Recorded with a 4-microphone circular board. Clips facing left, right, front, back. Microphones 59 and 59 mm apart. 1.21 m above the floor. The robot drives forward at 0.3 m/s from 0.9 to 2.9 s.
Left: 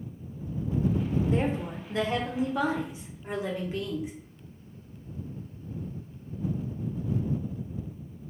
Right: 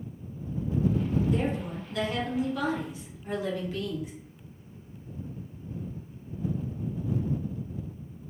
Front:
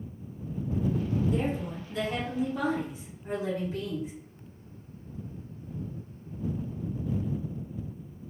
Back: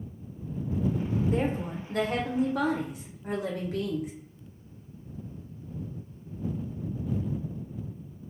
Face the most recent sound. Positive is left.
turn(degrees=155)